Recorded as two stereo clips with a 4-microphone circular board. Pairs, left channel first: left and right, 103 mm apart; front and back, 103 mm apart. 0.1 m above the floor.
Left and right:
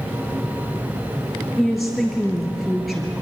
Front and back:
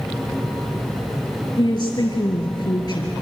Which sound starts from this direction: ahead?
A woman speaking, at 1.6 s.